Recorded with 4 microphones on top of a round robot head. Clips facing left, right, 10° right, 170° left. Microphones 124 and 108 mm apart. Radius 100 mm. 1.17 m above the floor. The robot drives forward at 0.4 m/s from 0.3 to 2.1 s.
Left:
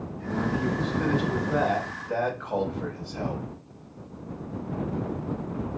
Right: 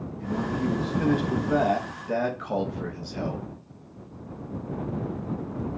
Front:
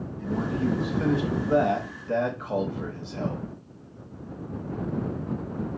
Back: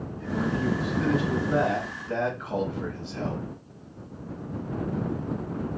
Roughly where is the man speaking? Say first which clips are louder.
Even, even; ahead right.